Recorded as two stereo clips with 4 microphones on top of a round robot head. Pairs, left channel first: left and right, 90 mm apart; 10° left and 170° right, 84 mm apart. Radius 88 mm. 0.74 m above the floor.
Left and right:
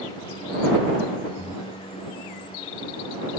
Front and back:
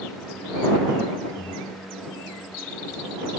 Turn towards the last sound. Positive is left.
turn(degrees=-5)